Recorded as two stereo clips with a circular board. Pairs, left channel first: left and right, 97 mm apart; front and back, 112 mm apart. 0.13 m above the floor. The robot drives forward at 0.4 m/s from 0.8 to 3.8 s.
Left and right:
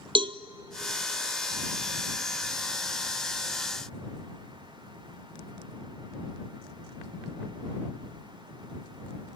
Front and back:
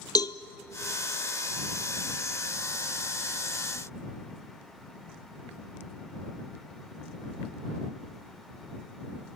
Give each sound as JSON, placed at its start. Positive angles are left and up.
{"t": 0.1, "sound": "a cowbell", "azimuth_deg": -55, "distance_m": 0.7}